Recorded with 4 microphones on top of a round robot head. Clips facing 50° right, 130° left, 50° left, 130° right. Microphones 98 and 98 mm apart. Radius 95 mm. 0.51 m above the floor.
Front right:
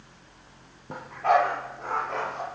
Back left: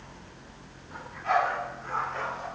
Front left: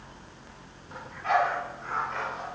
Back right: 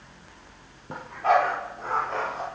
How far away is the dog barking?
About 7.5 m.